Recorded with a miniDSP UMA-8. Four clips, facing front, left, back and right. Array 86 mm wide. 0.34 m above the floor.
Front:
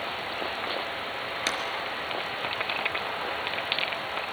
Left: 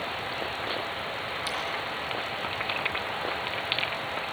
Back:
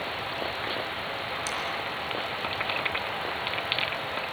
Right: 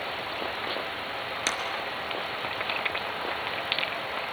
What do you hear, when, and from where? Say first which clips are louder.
1.5 s a clap: right 3 dB, front 5 dB; 50° right, 4.5 m